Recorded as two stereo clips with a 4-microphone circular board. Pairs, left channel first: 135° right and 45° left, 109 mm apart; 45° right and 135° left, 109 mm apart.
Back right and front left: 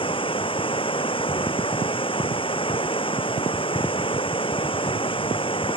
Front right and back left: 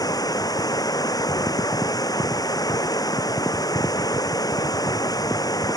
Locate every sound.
0.0 s running water: 100° right